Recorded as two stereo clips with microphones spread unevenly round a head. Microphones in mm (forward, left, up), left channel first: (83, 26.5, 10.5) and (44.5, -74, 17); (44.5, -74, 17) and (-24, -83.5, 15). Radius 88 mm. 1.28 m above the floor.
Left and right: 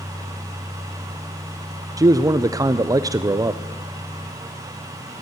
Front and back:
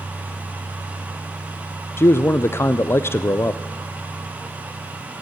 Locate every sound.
2.0 s a man speaking: 50° right, 0.5 m